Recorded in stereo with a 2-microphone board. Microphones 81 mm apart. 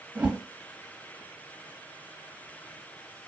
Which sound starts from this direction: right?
A whoosh, at 0.1 s.